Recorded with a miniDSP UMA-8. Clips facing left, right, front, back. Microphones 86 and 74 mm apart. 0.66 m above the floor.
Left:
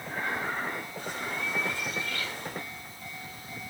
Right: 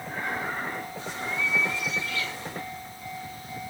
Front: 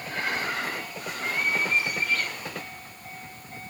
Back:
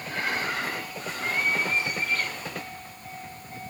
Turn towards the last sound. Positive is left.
turn(degrees=125)